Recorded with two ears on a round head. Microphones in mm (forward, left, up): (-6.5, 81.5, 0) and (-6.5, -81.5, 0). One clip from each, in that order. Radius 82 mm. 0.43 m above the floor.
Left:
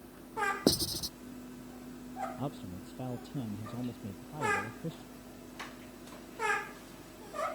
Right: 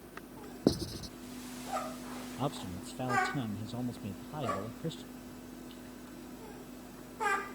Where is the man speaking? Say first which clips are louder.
Right 4 dB; 40° right (ahead or behind).